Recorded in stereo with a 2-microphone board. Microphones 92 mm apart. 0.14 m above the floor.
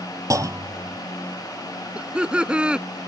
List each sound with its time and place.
0.3 s a clunk: 35° right (ahead or behind)
1.9 s laughter: 10° right (ahead or behind)